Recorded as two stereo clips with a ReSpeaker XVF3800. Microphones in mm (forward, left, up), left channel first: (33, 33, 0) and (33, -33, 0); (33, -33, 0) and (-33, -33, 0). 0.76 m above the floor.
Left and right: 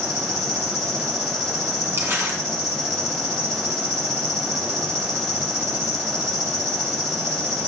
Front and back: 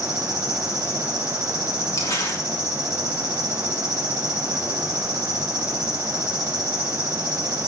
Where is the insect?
100° right, 3.5 m.